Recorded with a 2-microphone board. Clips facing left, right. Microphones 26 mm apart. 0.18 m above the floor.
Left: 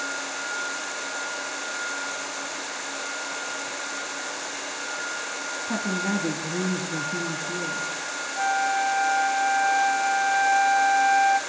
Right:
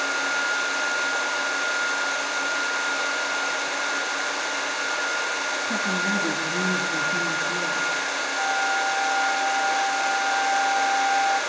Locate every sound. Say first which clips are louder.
5.7 s a woman speaking: even; 30° left (ahead or behind), 1.8 m
8.4 s a flute: left 2 dB; 20° left (ahead or behind), 0.8 m